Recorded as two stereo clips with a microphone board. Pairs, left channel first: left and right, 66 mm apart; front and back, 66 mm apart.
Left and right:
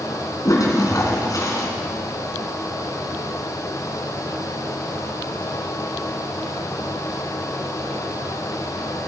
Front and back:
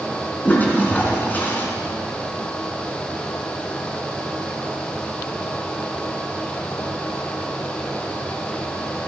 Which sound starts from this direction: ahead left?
A toilet flushing, at 0.5 s.